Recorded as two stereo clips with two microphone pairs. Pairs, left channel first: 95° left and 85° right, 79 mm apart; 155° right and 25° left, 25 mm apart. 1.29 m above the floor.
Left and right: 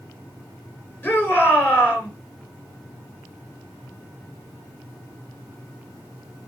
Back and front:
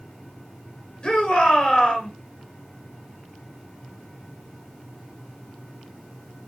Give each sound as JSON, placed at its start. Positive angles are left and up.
{"t": 1.0, "sound": "a shout", "azimuth_deg": 160, "distance_m": 6.0}